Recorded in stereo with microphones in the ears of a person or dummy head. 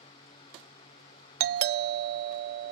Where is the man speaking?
I don't hear a man speaking.